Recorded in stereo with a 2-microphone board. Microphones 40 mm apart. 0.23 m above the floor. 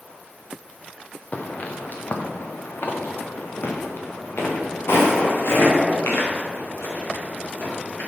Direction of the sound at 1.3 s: 40° left (ahead or behind).